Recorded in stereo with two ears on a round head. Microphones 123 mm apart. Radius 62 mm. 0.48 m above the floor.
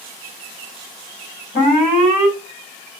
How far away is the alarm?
About 3 m.